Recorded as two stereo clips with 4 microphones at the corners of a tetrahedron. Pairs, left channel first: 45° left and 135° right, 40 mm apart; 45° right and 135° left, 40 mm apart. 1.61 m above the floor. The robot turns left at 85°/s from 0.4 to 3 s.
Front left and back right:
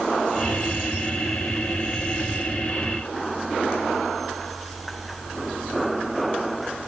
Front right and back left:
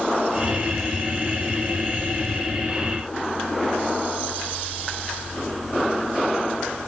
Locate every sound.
Only background noise.